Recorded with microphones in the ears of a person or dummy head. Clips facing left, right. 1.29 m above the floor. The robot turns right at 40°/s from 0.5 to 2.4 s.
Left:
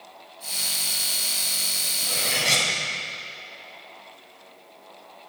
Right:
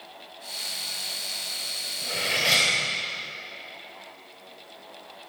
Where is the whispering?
I don't hear whispering.